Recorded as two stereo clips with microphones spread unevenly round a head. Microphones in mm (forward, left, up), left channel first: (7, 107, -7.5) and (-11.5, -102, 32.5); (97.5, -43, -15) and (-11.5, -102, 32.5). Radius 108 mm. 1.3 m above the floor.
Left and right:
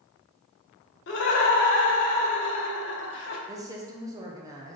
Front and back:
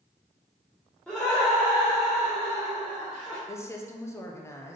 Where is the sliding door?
No sliding door in this recording.